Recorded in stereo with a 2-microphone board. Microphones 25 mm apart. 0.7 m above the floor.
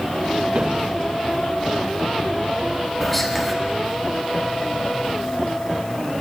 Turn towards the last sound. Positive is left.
turn(degrees=10)  # may be behind; listen again after turning